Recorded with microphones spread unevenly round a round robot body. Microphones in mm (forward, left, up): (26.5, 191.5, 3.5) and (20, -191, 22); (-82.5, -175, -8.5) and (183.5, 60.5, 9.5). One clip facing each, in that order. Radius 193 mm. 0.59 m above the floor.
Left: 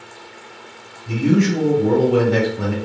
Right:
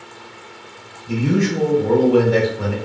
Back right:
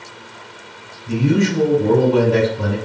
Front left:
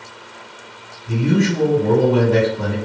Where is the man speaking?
120° left, 2.0 m.